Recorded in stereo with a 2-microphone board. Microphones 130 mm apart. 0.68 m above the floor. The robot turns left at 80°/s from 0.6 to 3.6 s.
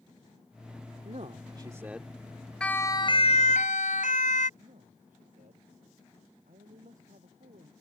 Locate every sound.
1.1 s a man speaking: 100° right; by 2.1 s 175° left
2.6 s a siren: 5° left (ahead or behind); by 4.5 s 75° left (ahead or behind)
4.6 s a man speaking: 85° right